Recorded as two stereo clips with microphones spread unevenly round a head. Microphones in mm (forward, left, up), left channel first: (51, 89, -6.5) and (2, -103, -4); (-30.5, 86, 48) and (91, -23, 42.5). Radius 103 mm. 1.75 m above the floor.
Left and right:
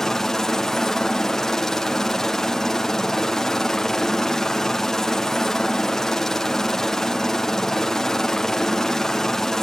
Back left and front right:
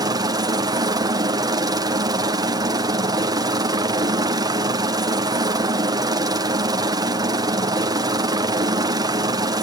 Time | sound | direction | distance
0.0 | a helicopter | 10° right | ?